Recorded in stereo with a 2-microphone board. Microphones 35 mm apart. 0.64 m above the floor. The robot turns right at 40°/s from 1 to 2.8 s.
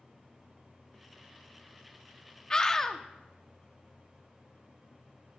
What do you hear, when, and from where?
2.5 s a scream: 25° left (ahead or behind), 0.8 m; by 3.0 s 15° left (ahead or behind), 0.8 m